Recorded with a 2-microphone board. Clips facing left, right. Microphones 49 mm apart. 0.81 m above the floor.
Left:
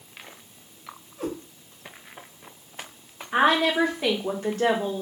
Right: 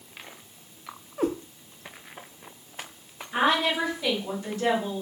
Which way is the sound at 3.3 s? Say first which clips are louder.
Left 3 dB; 55° left (ahead or behind).